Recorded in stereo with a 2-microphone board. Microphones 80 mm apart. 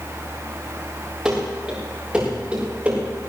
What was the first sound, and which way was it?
Running footsteps, 5° right (ahead or behind).